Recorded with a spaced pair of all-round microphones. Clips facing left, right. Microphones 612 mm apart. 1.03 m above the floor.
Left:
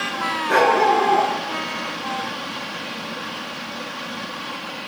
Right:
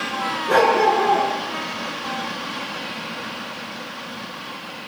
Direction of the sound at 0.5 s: 70° right (ahead or behind).